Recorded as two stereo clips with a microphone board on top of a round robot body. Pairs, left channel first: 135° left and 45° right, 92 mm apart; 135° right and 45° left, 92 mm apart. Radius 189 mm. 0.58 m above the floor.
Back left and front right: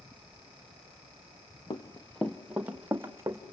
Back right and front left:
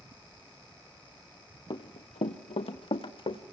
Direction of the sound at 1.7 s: 175° right.